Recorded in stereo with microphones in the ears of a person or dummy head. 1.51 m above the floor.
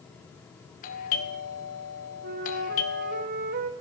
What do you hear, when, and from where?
0.8 s a doorbell: 40° left (ahead or behind), 2 m
2.2 s a flute: 45° right (ahead or behind), 1.3 m